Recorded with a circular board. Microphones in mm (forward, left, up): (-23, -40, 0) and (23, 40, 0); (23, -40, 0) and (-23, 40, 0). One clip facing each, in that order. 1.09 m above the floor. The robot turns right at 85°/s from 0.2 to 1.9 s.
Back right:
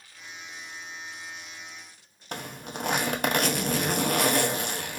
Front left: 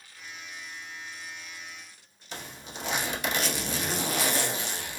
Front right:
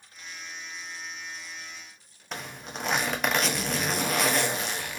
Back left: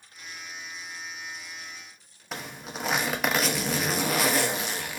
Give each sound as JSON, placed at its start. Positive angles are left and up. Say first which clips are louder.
{"t": 2.3, "sound": "a zipper", "louder": "back right 5 dB, back left 1 dB", "azimuth_deg": -150, "distance_m": 0.6}